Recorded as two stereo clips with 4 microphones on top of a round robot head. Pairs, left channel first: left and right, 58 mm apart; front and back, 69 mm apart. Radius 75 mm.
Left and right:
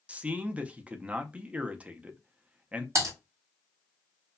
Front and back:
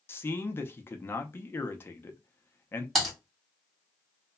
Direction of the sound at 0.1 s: 35° right.